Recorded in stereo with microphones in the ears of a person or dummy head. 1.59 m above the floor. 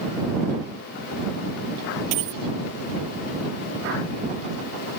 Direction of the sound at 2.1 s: 40° right (ahead or behind).